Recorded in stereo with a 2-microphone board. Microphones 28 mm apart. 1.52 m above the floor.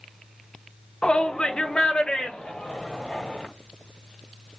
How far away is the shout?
About 0.9 m.